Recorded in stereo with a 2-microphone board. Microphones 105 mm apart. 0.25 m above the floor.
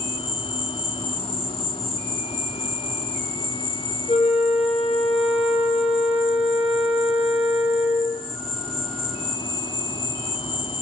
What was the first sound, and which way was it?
An insect, 70° left (ahead or behind).